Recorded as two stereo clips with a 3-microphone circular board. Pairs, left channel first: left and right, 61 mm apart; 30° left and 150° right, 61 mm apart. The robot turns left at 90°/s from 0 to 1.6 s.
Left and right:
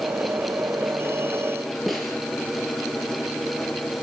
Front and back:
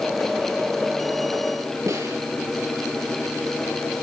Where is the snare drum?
Straight behind, 6.5 m.